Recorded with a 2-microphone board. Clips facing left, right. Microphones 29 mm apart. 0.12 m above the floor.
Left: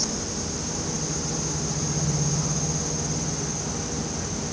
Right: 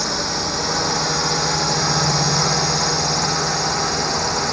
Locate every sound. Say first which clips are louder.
0.0 s a drone: right 8 dB; 65° right (ahead or behind); by 4.5 s 75° right (ahead or behind)